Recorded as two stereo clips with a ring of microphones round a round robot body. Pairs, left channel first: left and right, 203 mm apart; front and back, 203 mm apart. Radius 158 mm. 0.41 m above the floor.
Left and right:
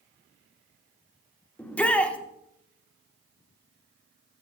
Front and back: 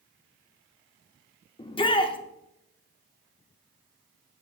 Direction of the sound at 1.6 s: 15° left.